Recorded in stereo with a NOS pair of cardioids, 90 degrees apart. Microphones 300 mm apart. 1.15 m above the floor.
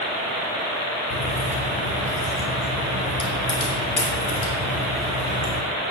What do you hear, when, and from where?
1.1 s a crack: 40° left, 7 m